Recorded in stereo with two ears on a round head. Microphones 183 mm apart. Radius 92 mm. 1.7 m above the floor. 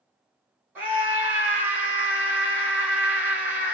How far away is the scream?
About 1.7 m.